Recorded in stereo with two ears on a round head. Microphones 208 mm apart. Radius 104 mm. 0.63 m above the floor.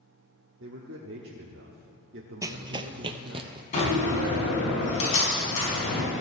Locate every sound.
0.6 s a man speaking: 55° right (ahead or behind), 1.1 m
2.4 s running footsteps: 15° right (ahead or behind), 0.6 m; by 3.6 s 25° right (ahead or behind), 1.0 m
3.7 s a door slam: 35° left (ahead or behind), 5 m